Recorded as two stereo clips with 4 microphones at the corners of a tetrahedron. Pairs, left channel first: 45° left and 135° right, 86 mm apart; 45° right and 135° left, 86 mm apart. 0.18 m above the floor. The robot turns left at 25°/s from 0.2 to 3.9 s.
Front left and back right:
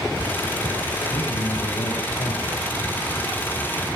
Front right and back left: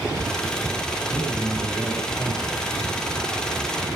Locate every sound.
1.1 s a man speaking: 60° left, 10 m; by 2.6 s 25° left, 10 m